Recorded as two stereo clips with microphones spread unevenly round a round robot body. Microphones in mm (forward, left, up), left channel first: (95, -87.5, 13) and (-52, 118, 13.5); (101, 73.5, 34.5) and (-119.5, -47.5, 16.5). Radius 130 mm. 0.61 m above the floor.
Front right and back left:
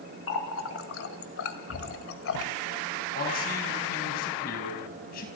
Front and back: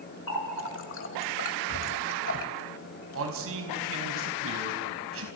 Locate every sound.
0.3 s a running tap: 15° right, 1.7 m
3.1 s a man speaking: 110° right, 4 m